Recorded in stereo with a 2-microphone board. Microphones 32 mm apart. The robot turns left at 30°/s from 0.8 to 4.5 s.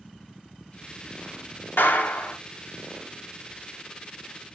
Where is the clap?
80° left, 1.8 m; by 2.4 s 65° left (ahead or behind), 1.8 m.